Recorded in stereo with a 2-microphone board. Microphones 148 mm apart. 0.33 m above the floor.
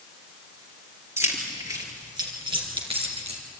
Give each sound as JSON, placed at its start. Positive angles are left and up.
{"t": 1.2, "sound": "keys jangling", "side_deg": -20, "distance_m": 4.0}